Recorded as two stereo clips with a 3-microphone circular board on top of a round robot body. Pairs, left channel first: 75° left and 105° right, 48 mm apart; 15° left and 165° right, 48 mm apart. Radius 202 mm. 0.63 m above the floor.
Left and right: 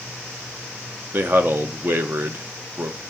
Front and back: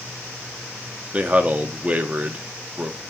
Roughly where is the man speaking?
Behind right.